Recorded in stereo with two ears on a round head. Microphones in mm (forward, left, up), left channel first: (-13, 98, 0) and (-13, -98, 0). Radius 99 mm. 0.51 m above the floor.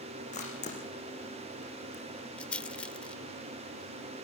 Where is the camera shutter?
35° left (ahead or behind), 7 m.